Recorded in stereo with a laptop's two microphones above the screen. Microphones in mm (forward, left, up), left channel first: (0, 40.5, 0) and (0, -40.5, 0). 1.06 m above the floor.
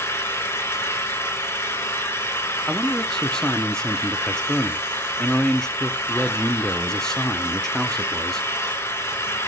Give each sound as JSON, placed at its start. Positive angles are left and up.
{"t": 0.0, "sound": "an engine running", "side_deg": 30, "distance_m": 2.5}
{"t": 2.7, "sound": "a man speaking", "side_deg": 5, "distance_m": 0.7}